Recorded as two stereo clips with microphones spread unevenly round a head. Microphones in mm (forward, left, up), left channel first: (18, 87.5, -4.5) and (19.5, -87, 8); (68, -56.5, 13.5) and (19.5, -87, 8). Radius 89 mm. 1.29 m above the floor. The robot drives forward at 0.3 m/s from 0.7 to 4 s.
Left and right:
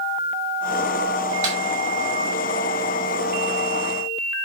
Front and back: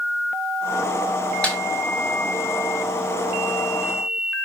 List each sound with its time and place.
1.4 s a snare drum: 40° right, 4.5 m